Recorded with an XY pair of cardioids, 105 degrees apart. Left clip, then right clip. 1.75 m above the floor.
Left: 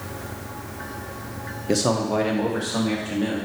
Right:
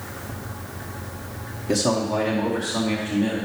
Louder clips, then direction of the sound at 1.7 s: Even; 25° left.